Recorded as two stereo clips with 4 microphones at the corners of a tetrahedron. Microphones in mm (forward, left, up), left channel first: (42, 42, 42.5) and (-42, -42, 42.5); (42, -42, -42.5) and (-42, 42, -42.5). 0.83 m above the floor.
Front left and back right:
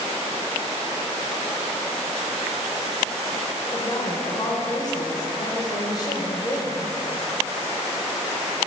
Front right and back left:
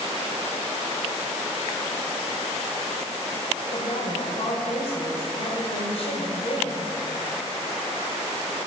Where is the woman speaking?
10° right, 3 m.